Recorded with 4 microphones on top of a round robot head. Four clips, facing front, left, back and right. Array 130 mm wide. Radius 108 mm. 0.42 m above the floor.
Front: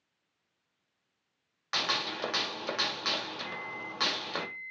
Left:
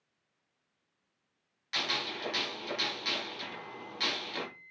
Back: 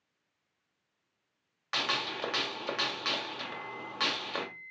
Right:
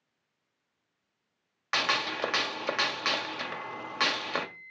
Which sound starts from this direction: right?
A gunshot, at 1.7 s.